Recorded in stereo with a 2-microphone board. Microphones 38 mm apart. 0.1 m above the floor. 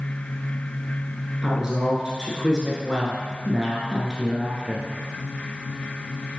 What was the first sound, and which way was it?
A woman speaking, 20° right (ahead or behind).